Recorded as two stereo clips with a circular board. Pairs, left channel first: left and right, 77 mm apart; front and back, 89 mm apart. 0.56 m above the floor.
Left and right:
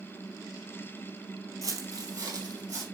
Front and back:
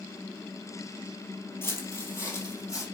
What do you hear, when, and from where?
1.6 s footsteps: 55° right, 0.9 m; by 2.8 s 50° right, 1.8 m